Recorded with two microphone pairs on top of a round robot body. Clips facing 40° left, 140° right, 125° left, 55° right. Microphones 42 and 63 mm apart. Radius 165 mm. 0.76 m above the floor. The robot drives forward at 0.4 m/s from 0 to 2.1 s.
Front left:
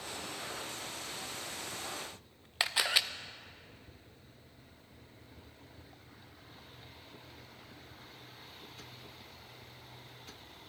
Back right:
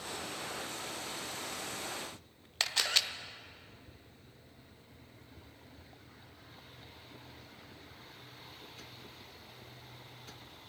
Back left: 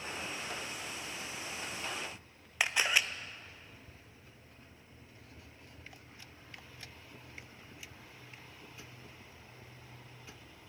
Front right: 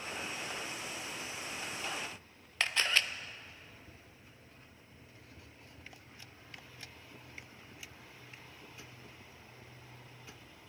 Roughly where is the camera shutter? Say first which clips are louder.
Front left 2 dB, back left 1 dB; ahead left.